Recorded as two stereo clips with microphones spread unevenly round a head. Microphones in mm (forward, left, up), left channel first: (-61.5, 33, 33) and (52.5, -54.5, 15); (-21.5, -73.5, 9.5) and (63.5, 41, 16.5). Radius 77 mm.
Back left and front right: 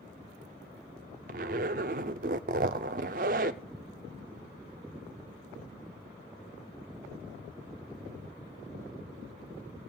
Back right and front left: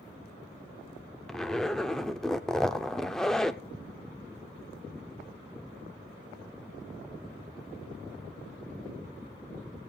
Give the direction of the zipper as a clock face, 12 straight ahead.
1 o'clock.